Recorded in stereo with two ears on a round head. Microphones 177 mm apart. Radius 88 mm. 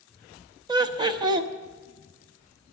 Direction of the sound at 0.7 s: 20° right (ahead or behind).